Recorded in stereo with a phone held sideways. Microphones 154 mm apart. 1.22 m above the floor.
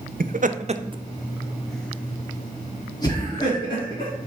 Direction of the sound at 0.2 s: 70° right (ahead or behind).